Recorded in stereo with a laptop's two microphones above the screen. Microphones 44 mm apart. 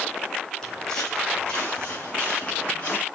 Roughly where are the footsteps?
Centre.